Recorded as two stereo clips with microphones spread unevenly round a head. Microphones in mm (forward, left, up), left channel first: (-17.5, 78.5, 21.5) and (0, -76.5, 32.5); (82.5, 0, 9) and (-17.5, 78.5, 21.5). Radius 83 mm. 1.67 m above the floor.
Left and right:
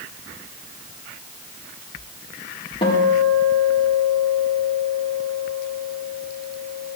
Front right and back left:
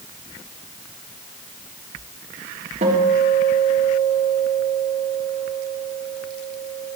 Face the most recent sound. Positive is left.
turn(degrees=150)